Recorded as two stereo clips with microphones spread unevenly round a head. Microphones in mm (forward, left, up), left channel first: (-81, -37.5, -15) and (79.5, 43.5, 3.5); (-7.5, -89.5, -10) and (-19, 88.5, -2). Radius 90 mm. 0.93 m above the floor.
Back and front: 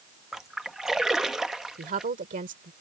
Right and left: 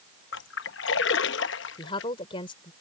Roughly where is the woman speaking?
Ahead right.